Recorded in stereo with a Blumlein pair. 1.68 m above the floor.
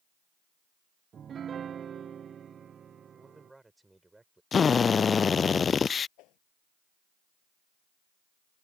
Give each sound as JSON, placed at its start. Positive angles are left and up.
{"t": 1.1, "sound": "a piano", "azimuth_deg": -25}
{"t": 3.1, "sound": "a man speaking", "azimuth_deg": -5}
{"t": 4.5, "sound": "a drill", "azimuth_deg": 20}
{"t": 6.2, "sound": "a whoosh", "azimuth_deg": 40}